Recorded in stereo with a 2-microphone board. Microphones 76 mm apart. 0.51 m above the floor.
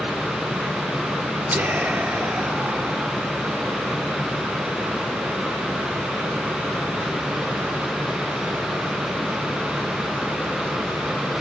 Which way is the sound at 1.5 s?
20° right (ahead or behind).